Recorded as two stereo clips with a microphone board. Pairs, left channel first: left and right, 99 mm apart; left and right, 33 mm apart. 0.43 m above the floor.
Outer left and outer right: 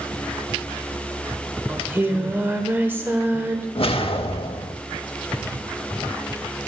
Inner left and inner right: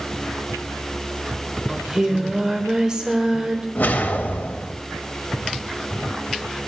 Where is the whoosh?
70° left (ahead or behind), 0.6 m.